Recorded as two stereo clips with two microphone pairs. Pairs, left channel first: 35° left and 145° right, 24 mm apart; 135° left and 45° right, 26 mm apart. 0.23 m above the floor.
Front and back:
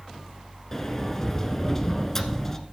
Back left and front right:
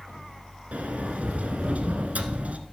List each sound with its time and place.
0.7 s a sliding door: 35° right, 1.1 m